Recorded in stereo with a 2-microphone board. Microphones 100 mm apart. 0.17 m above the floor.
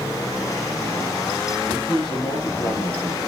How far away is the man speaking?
About 4.5 m.